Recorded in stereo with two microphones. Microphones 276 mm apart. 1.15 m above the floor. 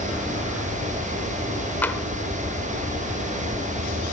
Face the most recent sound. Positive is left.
turn(degrees=5)  # may be behind; listen again after turning